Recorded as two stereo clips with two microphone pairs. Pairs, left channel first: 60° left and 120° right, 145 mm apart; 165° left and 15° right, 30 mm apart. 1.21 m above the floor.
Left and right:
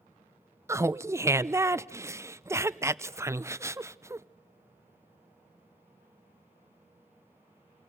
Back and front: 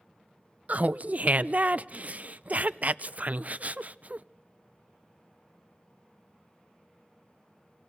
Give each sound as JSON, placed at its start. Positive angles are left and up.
{"t": 0.7, "sound": "laughter", "azimuth_deg": -50, "distance_m": 0.5}